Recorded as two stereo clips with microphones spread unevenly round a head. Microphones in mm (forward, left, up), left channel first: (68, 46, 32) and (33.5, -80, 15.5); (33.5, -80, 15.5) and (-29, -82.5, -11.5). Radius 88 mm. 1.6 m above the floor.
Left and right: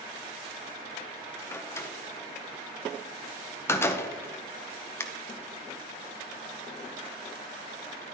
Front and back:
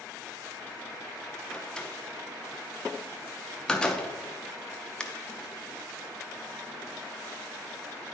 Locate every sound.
1.5 s a door slam: 30° left, 0.7 m